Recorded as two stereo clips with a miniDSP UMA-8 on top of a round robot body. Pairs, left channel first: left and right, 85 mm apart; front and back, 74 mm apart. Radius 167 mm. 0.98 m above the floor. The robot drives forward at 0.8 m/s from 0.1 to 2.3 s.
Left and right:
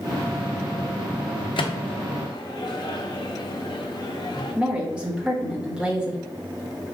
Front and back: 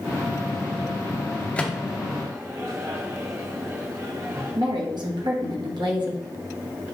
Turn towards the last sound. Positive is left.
turn(degrees=-165)